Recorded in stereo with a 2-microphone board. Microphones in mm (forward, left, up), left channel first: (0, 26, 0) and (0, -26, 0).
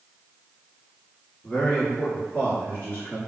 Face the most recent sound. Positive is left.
turn(degrees=35)  # may be behind; listen again after turning